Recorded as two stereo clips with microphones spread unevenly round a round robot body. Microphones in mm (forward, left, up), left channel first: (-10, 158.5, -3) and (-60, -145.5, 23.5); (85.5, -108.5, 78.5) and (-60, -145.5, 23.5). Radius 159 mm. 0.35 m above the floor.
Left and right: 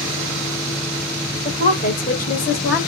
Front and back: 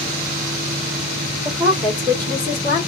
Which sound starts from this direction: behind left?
A woman speaking, at 1.4 s.